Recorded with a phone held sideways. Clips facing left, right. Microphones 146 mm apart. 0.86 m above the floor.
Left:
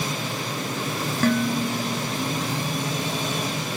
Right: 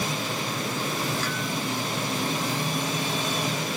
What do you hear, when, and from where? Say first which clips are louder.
1.2 s dishes clattering: left 8 dB; 50° left (ahead or behind)